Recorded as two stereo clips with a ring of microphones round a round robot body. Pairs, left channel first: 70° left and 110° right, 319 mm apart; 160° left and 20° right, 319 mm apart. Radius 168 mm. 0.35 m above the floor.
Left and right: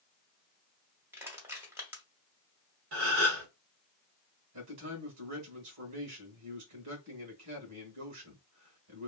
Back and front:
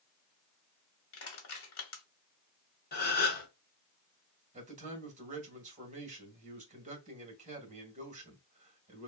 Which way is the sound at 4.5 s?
85° right.